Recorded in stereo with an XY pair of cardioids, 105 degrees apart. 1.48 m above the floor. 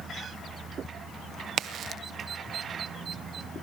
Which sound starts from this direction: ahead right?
A crack, at 1.6 s.